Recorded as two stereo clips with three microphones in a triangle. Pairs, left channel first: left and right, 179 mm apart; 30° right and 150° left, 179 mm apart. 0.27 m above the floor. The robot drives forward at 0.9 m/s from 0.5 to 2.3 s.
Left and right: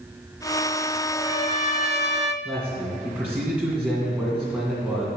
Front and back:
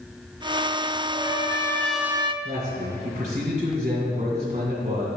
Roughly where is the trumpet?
Ahead left.